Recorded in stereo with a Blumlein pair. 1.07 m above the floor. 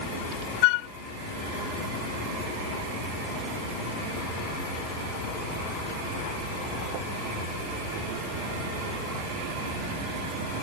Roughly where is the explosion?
I don't hear an explosion.